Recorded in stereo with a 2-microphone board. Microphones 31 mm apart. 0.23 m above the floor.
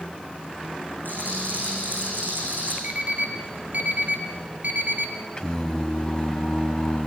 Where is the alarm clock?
65° right (ahead or behind), 2.5 m.